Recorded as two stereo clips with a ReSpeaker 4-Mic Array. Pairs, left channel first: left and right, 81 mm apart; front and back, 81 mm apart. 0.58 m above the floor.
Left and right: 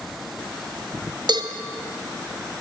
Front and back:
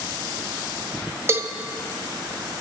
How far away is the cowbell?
About 0.6 m.